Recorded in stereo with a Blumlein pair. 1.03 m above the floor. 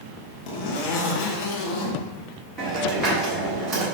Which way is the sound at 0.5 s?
45° left.